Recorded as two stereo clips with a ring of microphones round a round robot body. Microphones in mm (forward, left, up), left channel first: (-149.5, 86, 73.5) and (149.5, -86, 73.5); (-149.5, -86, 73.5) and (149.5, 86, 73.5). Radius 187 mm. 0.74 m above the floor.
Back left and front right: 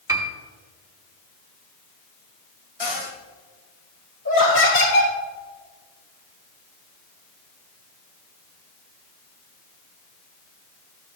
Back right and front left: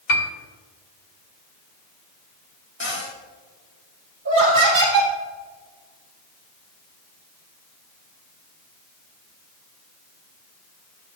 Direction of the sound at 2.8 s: 150° left.